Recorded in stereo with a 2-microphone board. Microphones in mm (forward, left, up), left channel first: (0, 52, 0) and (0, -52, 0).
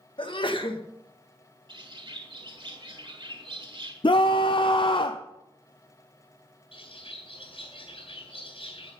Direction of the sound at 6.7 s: 60° left (ahead or behind).